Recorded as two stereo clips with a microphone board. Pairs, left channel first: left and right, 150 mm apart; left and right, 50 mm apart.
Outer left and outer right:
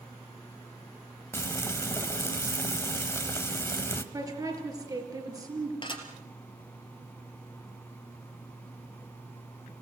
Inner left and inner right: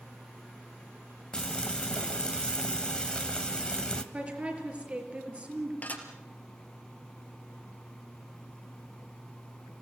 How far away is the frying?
About 1.2 m.